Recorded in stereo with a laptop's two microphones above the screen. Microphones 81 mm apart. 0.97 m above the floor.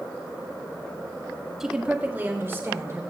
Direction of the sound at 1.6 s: 5° right (ahead or behind).